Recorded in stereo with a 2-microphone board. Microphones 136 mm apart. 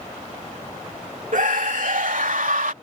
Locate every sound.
1.3 s a scream: 70° right (ahead or behind); by 2.7 s 80° right